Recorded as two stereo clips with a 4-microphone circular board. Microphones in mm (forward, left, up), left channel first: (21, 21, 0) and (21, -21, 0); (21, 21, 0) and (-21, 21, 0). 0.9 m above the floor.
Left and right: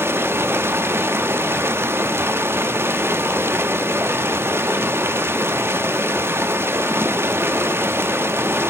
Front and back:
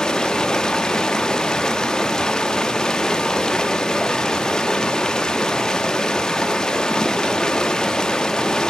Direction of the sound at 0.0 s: 75° right.